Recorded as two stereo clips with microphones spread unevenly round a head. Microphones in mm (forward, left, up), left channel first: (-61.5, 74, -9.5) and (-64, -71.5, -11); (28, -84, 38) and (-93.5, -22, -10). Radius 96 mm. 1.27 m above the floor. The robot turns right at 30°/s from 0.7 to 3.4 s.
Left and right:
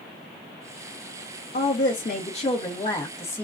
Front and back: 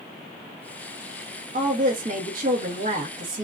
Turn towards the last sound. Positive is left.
turn(degrees=165)